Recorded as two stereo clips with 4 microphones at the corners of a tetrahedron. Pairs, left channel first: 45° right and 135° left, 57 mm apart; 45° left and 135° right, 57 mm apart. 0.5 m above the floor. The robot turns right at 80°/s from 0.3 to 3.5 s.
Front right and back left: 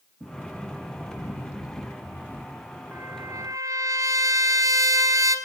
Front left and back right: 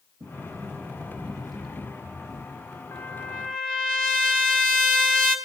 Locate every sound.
0.2 s a sliding door: 140° right, 3.5 m; by 2.5 s 40° left, 3.5 m
2.9 s a trumpet: 80° left, 4.5 m; by 5.4 s 125° left, 4.5 m